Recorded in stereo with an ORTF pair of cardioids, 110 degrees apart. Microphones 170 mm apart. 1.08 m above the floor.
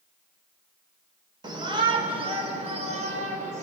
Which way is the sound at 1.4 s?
25° right.